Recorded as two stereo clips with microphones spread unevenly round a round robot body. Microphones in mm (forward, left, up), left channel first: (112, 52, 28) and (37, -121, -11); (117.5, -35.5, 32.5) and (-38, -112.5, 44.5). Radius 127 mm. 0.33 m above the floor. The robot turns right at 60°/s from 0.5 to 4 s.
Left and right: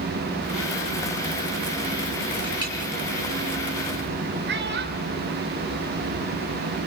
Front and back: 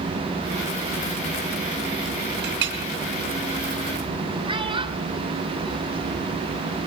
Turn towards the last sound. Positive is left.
turn(degrees=-95)